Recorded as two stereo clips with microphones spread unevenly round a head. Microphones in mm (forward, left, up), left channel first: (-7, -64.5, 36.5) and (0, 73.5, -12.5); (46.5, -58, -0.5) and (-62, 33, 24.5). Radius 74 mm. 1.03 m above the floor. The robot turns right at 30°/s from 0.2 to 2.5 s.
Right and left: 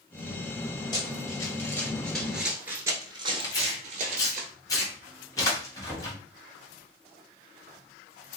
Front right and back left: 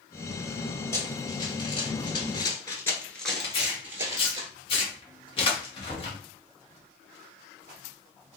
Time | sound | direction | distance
0.9 | running footsteps | 115° right | 1.5 m
3.4 | tearing paper | 15° right | 1.2 m
5.9 | knocking | 5° right | 1.5 m